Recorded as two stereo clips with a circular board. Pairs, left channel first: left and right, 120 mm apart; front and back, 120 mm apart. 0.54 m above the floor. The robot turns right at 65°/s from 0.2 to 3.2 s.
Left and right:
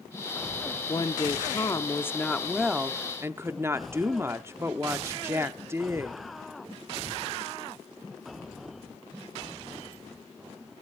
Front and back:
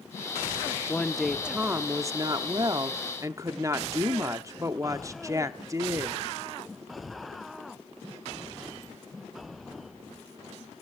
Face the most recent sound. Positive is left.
turn(degrees=-145)